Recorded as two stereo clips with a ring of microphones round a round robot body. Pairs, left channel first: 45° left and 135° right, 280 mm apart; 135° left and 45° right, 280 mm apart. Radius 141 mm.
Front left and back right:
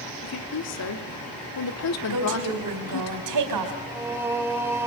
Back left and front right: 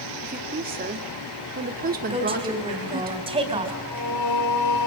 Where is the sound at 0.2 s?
15° left, 2 m.